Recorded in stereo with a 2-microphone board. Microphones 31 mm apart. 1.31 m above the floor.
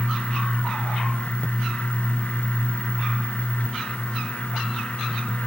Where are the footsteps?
I don't hear footsteps.